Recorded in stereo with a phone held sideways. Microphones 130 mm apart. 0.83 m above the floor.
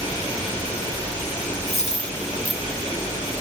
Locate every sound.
1.7 s a dropped coin: 55° left (ahead or behind), 1.1 m